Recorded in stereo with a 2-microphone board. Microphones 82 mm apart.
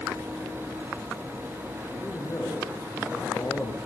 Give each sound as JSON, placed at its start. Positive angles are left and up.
{"t": 1.9, "sound": "a man speaking", "side_deg": 30, "distance_m": 8.0}